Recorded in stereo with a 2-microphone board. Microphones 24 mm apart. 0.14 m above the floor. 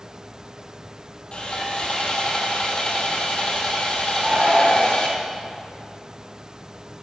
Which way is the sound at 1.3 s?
45° left (ahead or behind).